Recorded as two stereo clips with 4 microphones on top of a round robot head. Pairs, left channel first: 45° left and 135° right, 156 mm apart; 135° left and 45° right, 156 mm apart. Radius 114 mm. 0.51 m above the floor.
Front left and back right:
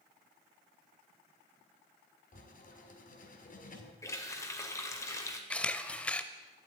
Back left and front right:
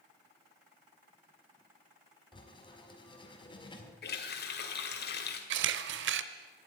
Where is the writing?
75° left, 1.8 m.